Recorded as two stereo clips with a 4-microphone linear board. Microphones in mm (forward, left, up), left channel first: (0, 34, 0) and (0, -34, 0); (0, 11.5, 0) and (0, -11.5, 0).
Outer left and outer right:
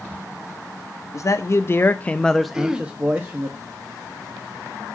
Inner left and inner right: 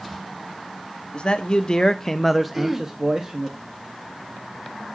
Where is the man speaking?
50° left (ahead or behind), 0.7 m; by 3.5 s 35° right (ahead or behind), 0.8 m.